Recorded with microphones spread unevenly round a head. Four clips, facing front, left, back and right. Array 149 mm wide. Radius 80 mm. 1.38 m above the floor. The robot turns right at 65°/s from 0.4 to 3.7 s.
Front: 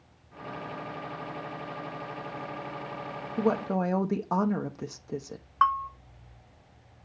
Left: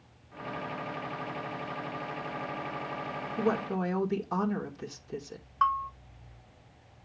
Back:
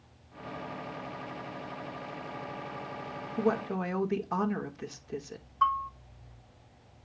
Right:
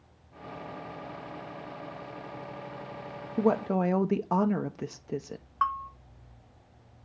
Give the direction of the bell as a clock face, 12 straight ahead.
12 o'clock.